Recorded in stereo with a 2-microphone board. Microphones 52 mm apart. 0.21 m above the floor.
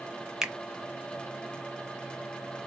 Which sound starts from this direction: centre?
A finger snap, at 0.4 s.